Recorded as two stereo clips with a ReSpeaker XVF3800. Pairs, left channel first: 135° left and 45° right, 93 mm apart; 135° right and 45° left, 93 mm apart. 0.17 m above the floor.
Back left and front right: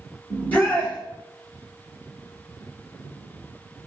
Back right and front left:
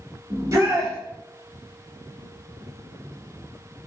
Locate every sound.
0.3 s a shout: 75° left, 1.3 m